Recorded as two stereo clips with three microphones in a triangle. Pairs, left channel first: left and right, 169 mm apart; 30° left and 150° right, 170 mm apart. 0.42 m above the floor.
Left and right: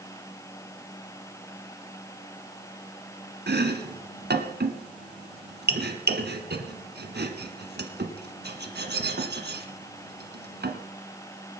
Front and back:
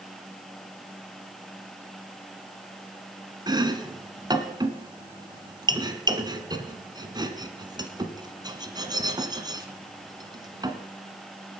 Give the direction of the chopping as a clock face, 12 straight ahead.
3 o'clock.